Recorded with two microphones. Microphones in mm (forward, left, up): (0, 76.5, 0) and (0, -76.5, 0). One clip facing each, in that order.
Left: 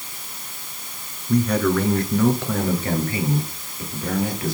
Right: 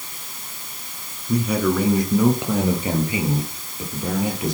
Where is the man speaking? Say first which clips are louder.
Left 1 dB; 10° right (ahead or behind), 3.5 m; by 4.5 s 20° right (ahead or behind), 7 m.